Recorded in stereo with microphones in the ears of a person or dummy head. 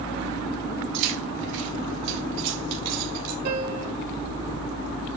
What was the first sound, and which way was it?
Keys jangling, 75° right (ahead or behind).